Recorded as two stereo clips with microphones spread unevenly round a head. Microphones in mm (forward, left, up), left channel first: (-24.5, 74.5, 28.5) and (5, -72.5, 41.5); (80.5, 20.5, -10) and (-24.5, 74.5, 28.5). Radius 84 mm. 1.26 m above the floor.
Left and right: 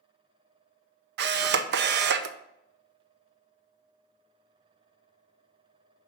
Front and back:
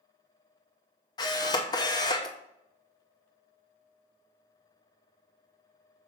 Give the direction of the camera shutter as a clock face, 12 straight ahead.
3 o'clock.